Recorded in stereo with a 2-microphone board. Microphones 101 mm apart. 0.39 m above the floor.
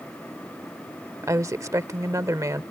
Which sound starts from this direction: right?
A woman speaking, at 1.2 s.